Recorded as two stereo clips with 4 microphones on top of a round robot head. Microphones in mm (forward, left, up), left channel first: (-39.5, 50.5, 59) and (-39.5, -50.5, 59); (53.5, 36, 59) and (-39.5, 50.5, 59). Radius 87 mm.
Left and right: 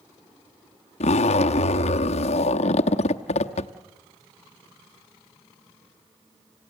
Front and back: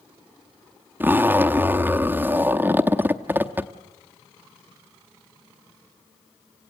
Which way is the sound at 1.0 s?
100° left.